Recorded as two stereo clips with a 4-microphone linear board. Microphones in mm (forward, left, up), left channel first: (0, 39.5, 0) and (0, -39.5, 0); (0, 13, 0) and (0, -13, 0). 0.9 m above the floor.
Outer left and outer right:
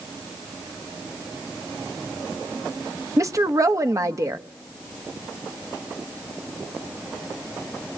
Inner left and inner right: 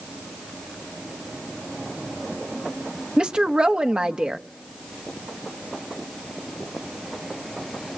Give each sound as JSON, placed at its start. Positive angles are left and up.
{"t": 3.2, "sound": "a woman speaking", "side_deg": -45, "distance_m": 1.4}